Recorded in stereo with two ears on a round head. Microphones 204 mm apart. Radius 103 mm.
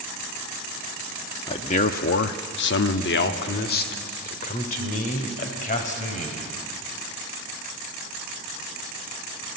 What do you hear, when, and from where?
1.5 s a man speaking: 20° left (ahead or behind), 0.8 m; by 6.6 s 35° left (ahead or behind), 3.5 m